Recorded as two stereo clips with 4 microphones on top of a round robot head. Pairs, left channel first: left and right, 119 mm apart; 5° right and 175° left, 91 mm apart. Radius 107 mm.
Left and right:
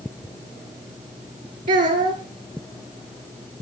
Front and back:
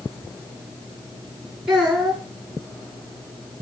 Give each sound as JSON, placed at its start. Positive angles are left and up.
{"t": 1.7, "sound": "a child speaking", "azimuth_deg": -100, "distance_m": 5.0}